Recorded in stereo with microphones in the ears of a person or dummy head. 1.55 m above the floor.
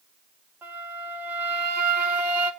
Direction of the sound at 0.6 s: 10° right (ahead or behind).